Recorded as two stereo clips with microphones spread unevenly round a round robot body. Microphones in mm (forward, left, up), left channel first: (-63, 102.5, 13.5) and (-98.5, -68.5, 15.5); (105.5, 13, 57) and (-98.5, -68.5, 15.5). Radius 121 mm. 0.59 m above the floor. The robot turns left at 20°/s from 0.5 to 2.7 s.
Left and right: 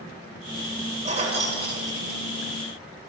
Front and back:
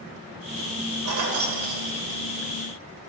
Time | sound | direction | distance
1.1 | keys jangling | 150° right | 1.9 m